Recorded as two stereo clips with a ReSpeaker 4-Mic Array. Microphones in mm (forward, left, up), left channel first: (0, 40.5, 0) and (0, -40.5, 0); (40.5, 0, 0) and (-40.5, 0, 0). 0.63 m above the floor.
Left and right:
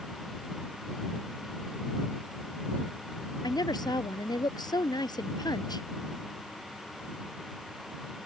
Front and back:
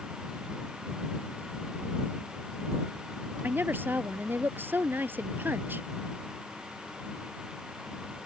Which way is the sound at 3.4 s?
120° left.